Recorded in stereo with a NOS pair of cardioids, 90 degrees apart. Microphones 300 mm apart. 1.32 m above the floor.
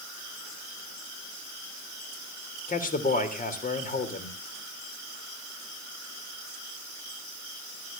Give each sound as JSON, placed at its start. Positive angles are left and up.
{"t": 2.7, "sound": "a man speaking", "azimuth_deg": 30, "distance_m": 3.5}